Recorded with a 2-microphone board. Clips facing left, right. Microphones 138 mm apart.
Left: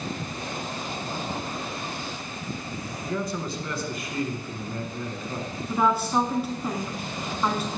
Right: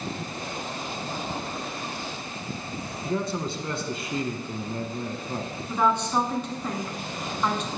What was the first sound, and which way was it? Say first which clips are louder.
A man speaking: right 2 dB; 25° right (ahead or behind).